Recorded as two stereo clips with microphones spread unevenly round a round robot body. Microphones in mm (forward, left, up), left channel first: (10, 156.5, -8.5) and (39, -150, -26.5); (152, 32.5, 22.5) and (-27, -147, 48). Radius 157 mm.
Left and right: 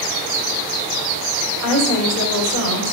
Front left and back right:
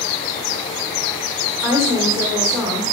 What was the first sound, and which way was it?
A woman speaking, 140° left.